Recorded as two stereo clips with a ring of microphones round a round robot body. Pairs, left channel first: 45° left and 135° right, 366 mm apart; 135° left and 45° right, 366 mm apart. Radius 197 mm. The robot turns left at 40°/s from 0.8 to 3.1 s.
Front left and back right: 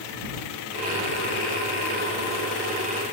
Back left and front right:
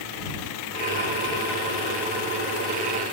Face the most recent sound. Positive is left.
No sound to turn to.